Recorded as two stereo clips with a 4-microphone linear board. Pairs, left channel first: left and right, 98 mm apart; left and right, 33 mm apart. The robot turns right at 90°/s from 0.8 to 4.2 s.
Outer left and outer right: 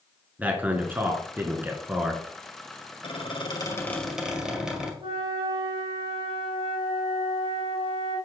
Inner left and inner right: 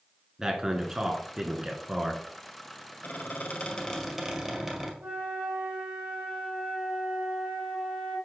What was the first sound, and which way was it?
A man speaking, 15° right (ahead or behind).